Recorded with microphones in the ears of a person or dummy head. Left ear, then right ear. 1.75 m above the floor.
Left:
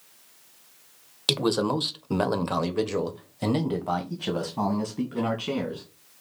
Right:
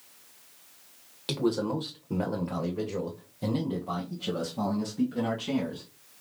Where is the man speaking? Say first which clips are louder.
Left 5 dB; 40° left (ahead or behind), 1.1 m; by 5.8 s 30° left (ahead or behind), 2 m.